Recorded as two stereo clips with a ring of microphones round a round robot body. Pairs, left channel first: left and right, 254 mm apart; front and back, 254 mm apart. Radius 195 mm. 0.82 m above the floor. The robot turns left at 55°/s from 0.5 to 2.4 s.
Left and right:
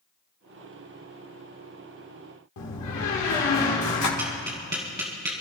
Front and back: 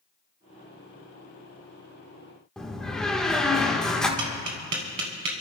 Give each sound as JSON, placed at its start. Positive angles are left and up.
{"t": 2.6, "sound": "a door slam", "azimuth_deg": 90, "distance_m": 1.7}
{"t": 4.2, "sound": "tapping", "azimuth_deg": -155, "distance_m": 1.4}